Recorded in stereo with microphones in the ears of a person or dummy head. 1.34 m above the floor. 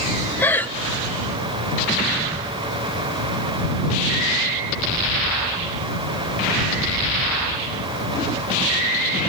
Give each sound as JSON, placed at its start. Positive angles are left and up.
{"t": 0.4, "sound": "breathing", "side_deg": 10}